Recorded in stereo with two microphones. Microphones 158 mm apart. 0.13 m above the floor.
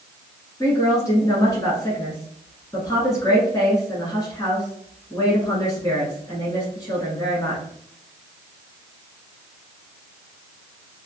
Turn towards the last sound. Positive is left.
turn(degrees=20)  # may be behind; listen again after turning